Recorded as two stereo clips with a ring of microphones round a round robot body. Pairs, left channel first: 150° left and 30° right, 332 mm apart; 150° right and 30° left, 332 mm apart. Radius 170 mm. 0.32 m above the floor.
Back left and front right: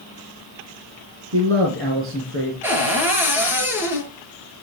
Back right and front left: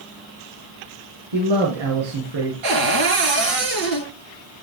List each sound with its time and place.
1.3 s a man speaking: 20° left, 4.5 m
2.6 s a cupboard door: 55° left, 5 m